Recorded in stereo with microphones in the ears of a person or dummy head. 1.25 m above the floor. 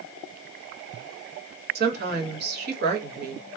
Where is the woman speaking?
50° right (ahead or behind), 0.8 m.